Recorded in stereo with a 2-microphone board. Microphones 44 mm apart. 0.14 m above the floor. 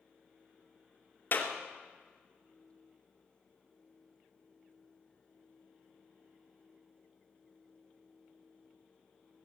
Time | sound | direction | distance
1.3 | a clap | 50° left (ahead or behind) | 2 m